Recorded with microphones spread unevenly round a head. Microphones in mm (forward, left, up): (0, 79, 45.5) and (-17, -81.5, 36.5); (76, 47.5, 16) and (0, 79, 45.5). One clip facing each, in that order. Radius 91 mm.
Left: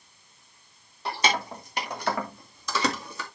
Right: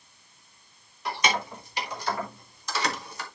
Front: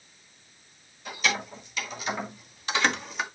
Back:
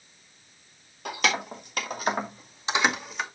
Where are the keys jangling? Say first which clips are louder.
Left 1 dB, back 2 dB; 145° left, 3 m; by 3.2 s 70° left, 2.0 m.